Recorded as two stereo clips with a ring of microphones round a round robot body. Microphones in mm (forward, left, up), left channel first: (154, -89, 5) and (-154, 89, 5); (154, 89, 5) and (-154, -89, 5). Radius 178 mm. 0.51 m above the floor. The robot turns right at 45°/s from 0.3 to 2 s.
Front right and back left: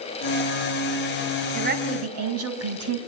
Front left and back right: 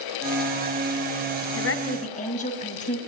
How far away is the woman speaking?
About 3.5 m.